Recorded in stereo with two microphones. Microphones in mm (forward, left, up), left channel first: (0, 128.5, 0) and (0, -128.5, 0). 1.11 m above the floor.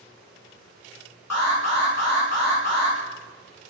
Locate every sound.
1.3 s an alarm: 85° left, 2 m